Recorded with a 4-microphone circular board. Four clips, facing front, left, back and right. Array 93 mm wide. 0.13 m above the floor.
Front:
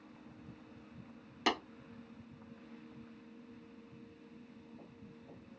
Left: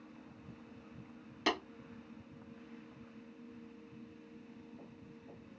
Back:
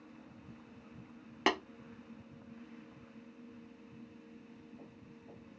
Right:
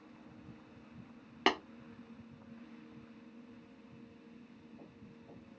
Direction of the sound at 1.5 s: 130° right.